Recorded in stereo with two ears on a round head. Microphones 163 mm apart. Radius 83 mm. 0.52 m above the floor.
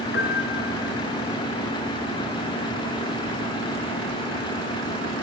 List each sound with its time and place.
0.1 s a piano: 70° left (ahead or behind), 4.5 m